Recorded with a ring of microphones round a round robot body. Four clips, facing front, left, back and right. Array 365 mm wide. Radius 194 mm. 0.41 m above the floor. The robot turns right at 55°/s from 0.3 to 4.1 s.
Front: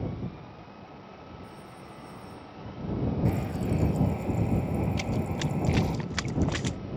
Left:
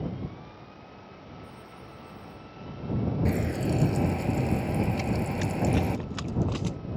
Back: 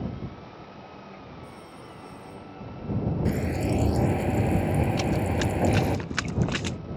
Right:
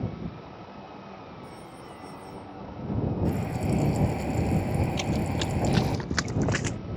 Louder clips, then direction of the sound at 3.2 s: Left 1 dB, back 3 dB; 125° left.